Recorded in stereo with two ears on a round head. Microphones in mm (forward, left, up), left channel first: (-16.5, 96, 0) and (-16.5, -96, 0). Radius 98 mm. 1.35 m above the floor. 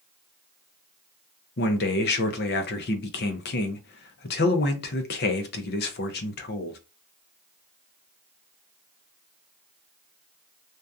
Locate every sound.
1.6 s a man speaking: 50° left (ahead or behind), 0.5 m